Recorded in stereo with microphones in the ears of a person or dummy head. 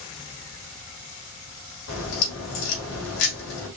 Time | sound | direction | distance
1.9 | a crack | 75° left (ahead or behind) | 2.5 m